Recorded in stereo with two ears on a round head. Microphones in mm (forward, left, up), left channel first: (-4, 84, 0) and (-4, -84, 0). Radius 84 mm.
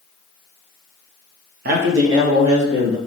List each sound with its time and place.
1.6 s a man speaking: 55° right (ahead or behind), 1.0 m; by 3.0 s 60° right (ahead or behind), 2 m